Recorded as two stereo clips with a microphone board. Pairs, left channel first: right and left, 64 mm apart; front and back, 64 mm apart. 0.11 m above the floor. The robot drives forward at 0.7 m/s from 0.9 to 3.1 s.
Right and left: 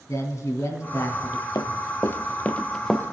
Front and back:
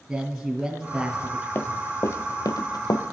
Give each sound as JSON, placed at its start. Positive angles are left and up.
{"t": 0.1, "sound": "a man speaking", "azimuth_deg": -105, "distance_m": 1.9}
{"t": 1.6, "sound": "running footsteps", "azimuth_deg": -60, "distance_m": 0.8}